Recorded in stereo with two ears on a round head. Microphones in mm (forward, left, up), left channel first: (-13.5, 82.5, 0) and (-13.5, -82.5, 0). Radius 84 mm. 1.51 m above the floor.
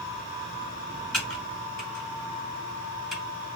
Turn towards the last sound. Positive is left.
turn(degrees=5)  # may be behind; listen again after turning